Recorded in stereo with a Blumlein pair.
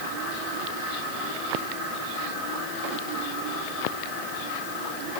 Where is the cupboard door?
No cupboard door in this recording.